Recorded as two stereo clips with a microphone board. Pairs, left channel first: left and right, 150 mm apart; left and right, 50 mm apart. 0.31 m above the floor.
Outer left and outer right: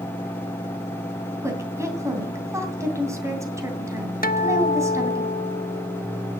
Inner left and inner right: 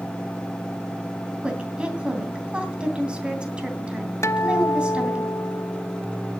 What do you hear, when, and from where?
1.4 s a woman speaking: 20° right (ahead or behind), 2.5 m
4.2 s a guitar: 70° left (ahead or behind), 0.6 m